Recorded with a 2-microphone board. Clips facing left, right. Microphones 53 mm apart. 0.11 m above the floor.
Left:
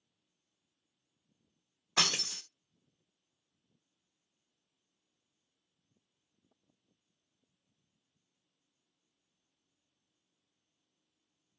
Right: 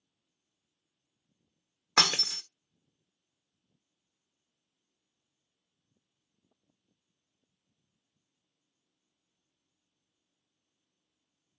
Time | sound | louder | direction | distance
2.0 | breaking glass | right 5 dB | 65° right (ahead or behind) | 0.6 m